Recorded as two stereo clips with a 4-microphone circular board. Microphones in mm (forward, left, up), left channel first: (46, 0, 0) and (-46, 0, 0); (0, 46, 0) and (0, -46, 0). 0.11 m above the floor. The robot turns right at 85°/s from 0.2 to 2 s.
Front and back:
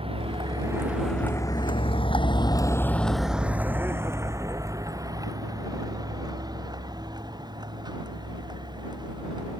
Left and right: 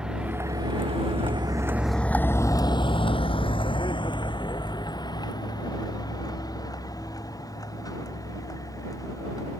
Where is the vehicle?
175° right; by 9.6 s 140° left.